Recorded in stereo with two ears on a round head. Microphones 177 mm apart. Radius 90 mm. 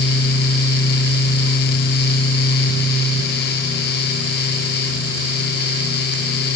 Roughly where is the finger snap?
No finger snap in this recording.